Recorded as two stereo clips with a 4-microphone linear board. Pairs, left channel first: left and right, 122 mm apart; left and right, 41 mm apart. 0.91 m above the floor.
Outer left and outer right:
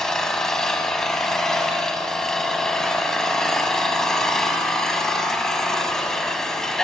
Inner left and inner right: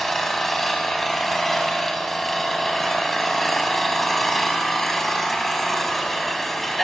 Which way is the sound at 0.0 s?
5° left (ahead or behind).